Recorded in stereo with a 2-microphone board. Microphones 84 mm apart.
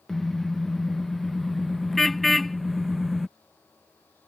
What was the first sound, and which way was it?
A car horn, 5° left (ahead or behind).